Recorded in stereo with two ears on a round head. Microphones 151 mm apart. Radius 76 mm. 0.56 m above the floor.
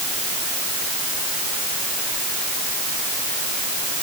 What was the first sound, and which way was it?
Only background noise.